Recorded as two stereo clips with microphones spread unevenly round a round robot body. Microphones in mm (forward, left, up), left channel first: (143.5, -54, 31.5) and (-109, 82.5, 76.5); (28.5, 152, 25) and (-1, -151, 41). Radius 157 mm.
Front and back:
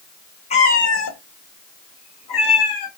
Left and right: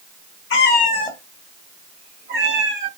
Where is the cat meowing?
45° left, 0.8 m; by 2.9 s 50° right, 1.5 m.